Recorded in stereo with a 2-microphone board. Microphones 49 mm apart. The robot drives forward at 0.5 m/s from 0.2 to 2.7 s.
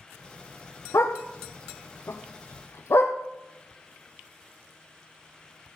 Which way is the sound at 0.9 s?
80° left.